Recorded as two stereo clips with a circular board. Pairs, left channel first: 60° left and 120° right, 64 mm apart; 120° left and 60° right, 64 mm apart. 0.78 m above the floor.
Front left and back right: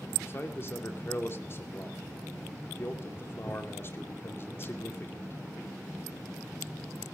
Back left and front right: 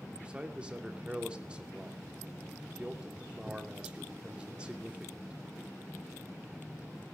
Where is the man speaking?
10° left, 2.5 m.